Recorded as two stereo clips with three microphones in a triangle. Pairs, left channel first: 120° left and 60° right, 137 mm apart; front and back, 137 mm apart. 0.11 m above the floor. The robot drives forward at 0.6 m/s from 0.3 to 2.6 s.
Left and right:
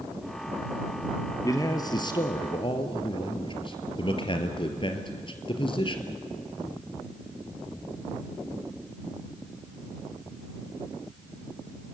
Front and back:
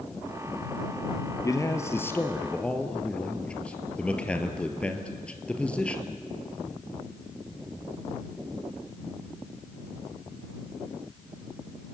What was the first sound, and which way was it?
A man speaking, 60° left.